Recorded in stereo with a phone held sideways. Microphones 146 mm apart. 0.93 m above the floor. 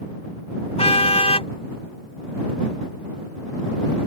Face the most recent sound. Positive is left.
turn(degrees=45)  # may be behind; listen again after turning